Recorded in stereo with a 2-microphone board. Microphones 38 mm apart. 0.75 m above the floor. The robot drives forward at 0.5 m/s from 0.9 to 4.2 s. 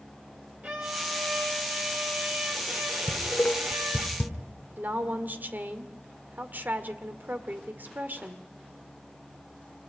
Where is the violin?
40° right (ahead or behind), 3.5 m; by 4.1 s 60° right (ahead or behind), 2.5 m.